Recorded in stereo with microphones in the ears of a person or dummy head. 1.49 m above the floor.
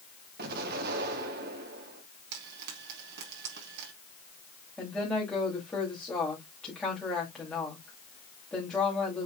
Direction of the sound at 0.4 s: 55° right (ahead or behind).